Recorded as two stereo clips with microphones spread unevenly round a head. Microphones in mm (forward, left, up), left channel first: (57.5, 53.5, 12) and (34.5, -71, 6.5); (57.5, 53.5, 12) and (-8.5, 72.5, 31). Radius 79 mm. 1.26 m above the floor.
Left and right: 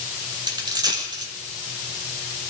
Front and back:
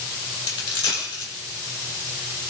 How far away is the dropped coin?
About 6 m.